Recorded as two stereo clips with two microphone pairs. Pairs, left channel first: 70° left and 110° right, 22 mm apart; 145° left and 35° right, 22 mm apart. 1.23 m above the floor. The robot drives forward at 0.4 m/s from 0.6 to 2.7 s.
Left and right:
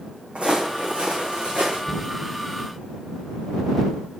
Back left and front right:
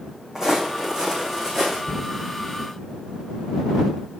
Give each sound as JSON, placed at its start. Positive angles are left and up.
{"t": 0.3, "sound": "footsteps", "azimuth_deg": -100, "distance_m": 3.0}
{"t": 1.9, "sound": "a cupboard door", "azimuth_deg": 145, "distance_m": 1.8}